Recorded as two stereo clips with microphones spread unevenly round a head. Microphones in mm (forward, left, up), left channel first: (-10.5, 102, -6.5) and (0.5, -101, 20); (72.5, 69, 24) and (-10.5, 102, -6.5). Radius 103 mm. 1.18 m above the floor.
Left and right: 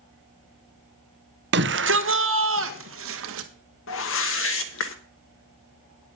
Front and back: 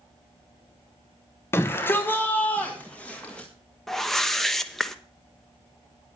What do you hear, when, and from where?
1.5 s a shout: 105° right, 0.8 m; by 3.5 s 110° right, 1.9 m
3.9 s a whoosh: 70° left, 1.1 m